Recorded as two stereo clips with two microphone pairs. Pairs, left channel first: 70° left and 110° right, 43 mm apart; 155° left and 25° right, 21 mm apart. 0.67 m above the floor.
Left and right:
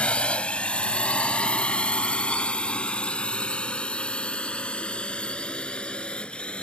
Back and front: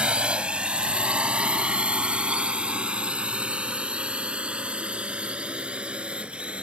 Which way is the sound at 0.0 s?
10° left.